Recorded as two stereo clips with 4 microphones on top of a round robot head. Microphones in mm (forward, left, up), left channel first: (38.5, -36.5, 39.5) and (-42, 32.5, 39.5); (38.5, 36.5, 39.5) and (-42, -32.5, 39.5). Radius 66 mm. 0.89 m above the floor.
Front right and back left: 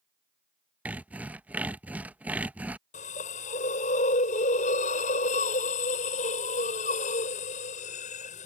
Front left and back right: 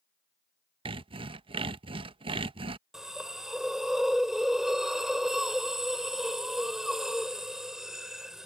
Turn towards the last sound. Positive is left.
turn(degrees=-55)